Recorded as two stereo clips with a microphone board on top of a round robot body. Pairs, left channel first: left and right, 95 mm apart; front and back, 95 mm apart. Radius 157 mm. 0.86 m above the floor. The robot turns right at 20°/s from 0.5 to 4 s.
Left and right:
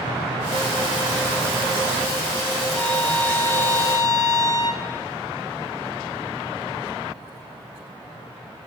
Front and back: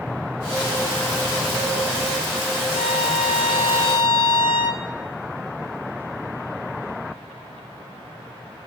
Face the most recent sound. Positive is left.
turn(degrees=40)